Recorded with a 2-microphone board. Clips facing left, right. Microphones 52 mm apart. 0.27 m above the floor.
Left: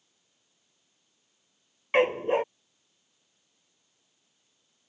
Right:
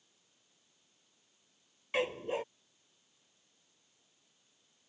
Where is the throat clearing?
No throat clearing in this recording.